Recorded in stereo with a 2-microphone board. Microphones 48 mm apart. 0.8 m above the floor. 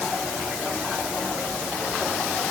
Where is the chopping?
I don't hear chopping.